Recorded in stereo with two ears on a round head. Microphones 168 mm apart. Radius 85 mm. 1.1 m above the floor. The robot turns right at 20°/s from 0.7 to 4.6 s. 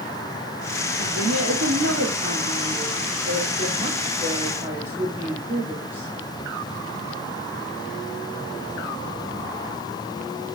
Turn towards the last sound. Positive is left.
turn(degrees=-10)